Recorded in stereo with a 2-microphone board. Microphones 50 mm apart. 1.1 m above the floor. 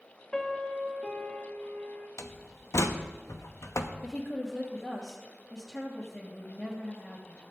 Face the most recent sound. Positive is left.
turn(degrees=15)  # may be behind; listen again after turning